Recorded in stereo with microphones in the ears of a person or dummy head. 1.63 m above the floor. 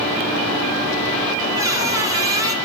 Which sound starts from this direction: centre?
A squeak, at 1.6 s.